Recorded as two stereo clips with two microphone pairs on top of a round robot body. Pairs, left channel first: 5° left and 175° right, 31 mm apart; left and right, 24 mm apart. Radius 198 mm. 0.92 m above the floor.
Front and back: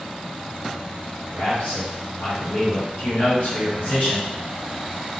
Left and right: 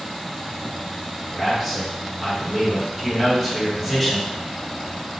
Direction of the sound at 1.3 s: Straight ahead.